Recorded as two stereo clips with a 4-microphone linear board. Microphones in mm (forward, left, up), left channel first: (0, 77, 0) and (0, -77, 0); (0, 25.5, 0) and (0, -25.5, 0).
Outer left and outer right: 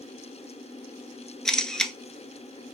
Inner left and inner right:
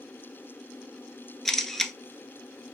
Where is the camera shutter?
5° left (ahead or behind), 0.5 m.